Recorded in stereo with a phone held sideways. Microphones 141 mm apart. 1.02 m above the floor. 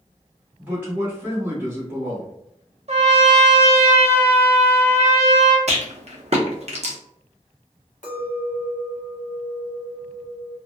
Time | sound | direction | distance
0.6 | a man speaking | 10° right (ahead or behind) | 1.1 m
2.9 | a trumpet | 50° right (ahead or behind) | 0.5 m
5.7 | a rattle | 50° right (ahead or behind) | 0.6 m
8.0 | a clink | 65° left (ahead or behind) | 1.1 m